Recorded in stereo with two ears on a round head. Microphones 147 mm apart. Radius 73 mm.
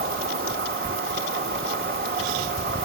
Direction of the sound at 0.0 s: 65° right (ahead or behind).